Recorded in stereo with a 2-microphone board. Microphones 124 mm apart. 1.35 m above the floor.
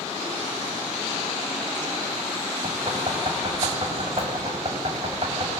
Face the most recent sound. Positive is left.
turn(degrees=-45)  # may be behind; listen again after turning